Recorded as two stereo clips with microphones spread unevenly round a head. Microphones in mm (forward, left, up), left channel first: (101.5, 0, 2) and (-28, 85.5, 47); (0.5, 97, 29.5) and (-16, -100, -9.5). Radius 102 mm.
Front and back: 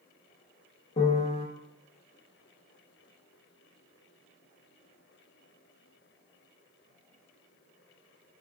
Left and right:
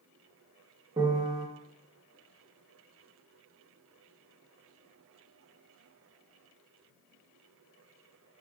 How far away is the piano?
About 0.5 m.